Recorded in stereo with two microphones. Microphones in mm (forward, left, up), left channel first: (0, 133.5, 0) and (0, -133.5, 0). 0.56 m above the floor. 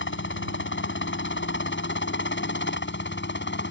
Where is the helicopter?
45° left (ahead or behind); by 3.7 s 40° left (ahead or behind).